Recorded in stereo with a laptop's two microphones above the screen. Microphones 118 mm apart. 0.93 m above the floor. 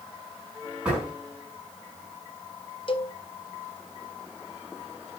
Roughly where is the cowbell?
Left.